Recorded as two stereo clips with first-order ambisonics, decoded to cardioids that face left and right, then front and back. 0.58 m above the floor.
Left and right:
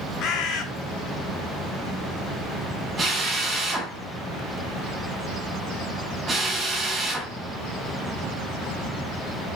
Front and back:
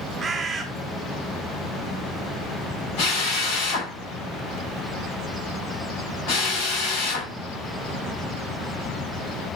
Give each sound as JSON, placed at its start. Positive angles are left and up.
{"t": 0.2, "sound": "a bird", "azimuth_deg": 115, "distance_m": 1.2}
{"t": 3.0, "sound": "a drill", "azimuth_deg": -15, "distance_m": 5.0}